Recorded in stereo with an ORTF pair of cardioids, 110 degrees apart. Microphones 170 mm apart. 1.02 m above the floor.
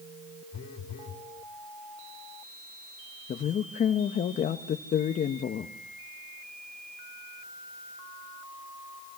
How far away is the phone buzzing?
About 3 m.